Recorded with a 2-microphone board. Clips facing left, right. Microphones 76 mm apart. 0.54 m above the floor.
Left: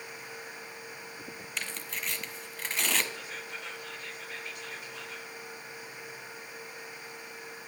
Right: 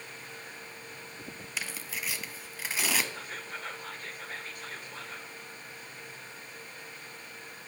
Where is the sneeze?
No sneeze in this recording.